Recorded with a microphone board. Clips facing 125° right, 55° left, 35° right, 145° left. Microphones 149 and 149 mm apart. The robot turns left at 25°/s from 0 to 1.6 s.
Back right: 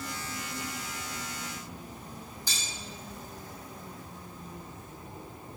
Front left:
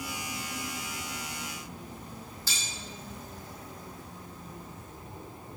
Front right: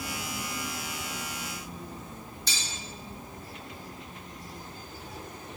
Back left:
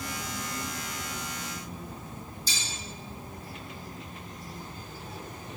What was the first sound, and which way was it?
Cutlery clinking, 50° right.